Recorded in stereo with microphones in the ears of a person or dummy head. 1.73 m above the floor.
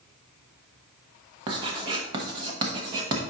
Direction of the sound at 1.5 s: 30° right (ahead or behind).